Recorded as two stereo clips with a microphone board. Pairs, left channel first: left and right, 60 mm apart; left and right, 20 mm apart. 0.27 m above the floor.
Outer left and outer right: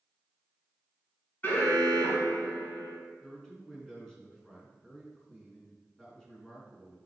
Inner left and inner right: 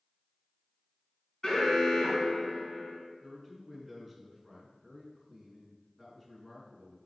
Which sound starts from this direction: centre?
A man speaking, at 3.2 s.